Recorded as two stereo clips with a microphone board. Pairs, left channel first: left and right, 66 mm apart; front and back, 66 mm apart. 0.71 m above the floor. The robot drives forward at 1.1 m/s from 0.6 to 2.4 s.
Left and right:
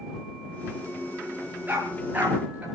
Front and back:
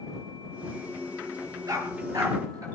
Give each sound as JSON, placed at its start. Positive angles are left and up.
{"t": 1.7, "sound": "a dog barking", "azimuth_deg": -155, "distance_m": 5.5}